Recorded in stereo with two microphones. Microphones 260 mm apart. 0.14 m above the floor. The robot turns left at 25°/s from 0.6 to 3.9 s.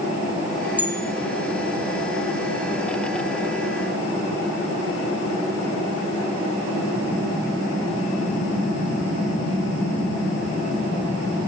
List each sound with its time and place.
0.8 s a bell: 5° right (ahead or behind), 0.5 m; by 1.0 s 10° right (ahead or behind), 0.5 m